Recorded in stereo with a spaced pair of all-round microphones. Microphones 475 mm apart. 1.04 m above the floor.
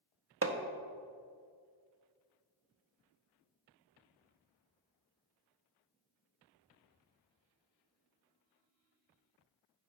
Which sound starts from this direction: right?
Hammering, at 0.4 s.